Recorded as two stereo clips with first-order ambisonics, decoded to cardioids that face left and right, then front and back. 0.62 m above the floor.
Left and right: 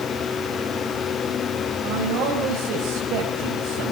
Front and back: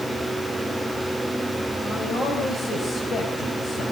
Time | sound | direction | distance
1.8 | a man speaking | 65° right | 4 m